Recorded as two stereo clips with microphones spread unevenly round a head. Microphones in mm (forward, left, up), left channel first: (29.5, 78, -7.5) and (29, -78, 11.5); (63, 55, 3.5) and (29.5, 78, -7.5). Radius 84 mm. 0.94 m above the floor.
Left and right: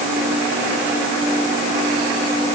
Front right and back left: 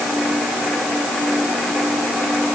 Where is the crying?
No crying in this recording.